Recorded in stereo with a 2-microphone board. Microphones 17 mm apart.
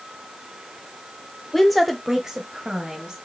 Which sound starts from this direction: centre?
A woman speaking, at 1.5 s.